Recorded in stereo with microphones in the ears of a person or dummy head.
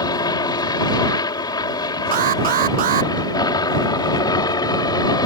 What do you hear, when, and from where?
0.0 s a helicopter: 25° left (ahead or behind)
2.1 s an alarm: 45° right (ahead or behind)